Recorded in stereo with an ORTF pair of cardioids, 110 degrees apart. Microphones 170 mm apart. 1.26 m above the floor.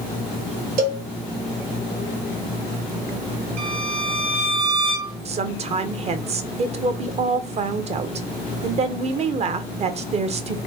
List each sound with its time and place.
0.8 s a cowbell: 65° right, 1.5 m
3.6 s a violin: 40° right, 1.1 m
5.2 s a woman speaking: 40° right, 0.6 m